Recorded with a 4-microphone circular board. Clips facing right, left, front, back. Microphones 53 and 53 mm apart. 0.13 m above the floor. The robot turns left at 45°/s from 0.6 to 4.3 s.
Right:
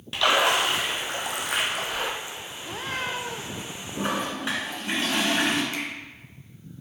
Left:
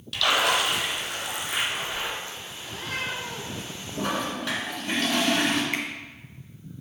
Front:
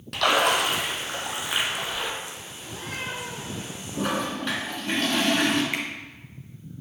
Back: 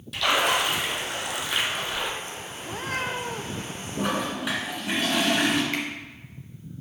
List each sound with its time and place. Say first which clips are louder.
0.1 s a splash: right 2 dB, front 2 dB; 30° right, 1.1 m; by 2.1 s 95° right, 1.1 m
2.6 s a cat meowing: right 1 dB, back 5 dB; 135° right, 0.7 m; by 3.6 s straight behind, 0.7 m
4.0 s a toilet flushing: even, even; 100° right, 1.6 m; by 5.6 s 115° right, 1.6 m
5.7 s a finger snap: left 2 dB, even; 75° left, 1.8 m